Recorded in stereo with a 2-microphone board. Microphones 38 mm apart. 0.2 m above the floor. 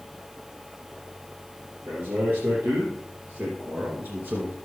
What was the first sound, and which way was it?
A man speaking, 75° right (ahead or behind).